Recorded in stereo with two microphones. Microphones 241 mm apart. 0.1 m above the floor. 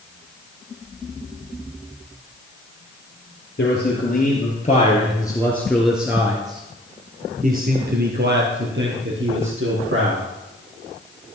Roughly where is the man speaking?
Left.